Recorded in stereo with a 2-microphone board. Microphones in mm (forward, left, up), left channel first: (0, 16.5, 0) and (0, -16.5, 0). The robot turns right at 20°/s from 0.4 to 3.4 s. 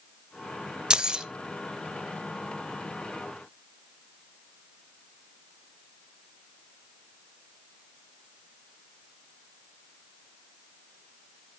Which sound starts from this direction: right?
Keys jangling, at 0.9 s.